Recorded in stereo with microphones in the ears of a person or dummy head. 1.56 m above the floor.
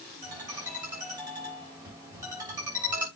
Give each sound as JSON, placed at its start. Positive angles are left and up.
{"t": 0.2, "sound": "a ringtone", "side_deg": -20, "distance_m": 3.5}